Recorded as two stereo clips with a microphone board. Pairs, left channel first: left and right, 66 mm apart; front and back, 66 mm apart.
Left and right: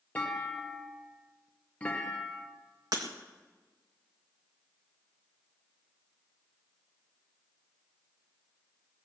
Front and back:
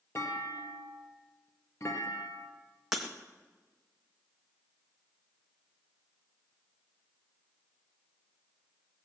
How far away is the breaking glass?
About 2.5 m.